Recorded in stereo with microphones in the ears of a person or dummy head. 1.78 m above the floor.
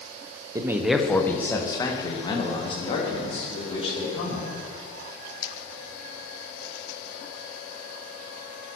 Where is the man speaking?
20° right (ahead or behind), 1.1 m; by 4.5 s 40° left (ahead or behind), 5.5 m.